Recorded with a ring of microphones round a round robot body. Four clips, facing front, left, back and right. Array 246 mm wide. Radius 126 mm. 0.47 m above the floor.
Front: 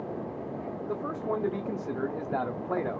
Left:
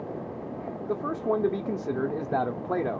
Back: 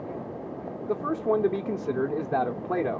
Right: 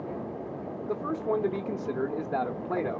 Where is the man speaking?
140° left, 0.9 m.